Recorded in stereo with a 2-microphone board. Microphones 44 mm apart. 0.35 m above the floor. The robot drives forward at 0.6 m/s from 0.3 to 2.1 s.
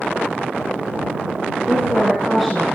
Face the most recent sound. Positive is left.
turn(degrees=5)  # may be behind; listen again after turning